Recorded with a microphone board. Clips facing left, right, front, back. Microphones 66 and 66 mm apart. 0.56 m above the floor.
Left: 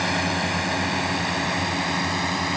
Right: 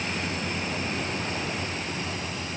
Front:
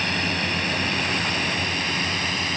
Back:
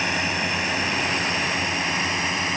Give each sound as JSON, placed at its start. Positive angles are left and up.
{"t": 0.0, "sound": "a drone", "azimuth_deg": 105}